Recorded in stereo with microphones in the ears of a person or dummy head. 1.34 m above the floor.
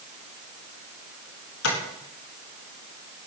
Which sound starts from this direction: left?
Tapping, at 1.6 s.